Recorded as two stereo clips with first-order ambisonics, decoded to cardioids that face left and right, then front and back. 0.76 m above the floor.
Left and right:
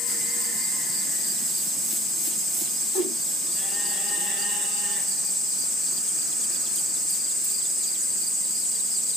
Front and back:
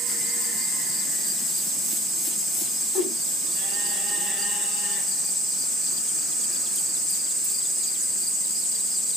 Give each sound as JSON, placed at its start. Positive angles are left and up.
{"t": 2.9, "sound": "a whoosh", "azimuth_deg": 60, "distance_m": 3.0}